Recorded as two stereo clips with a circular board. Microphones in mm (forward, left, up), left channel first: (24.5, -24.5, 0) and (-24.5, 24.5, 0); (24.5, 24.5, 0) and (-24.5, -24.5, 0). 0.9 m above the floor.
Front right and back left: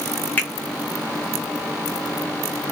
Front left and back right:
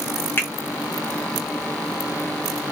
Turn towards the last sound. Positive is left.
turn(degrees=5)